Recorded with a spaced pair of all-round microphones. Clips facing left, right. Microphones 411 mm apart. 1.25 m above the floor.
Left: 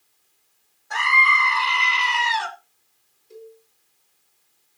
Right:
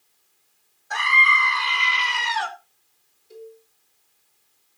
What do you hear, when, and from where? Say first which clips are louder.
0.9 s a scream: left 1 dB; centre (ahead or behind), 1.6 m
3.3 s a cowbell: right 1 dB; 10° left (ahead or behind), 3 m